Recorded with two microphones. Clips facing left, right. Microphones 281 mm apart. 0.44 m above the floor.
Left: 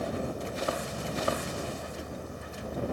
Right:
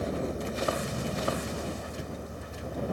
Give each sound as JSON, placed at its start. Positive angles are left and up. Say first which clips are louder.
{"t": 0.0, "sound": "a vehicle", "louder": "right 2 dB", "side_deg": -20}